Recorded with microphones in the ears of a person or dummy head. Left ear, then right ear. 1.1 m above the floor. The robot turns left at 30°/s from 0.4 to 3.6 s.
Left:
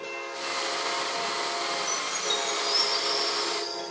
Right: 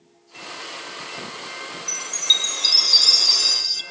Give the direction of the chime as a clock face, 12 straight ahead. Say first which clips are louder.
Right 8 dB; 1 o'clock.